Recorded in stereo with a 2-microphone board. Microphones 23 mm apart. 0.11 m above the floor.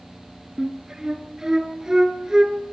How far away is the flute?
About 1.4 m.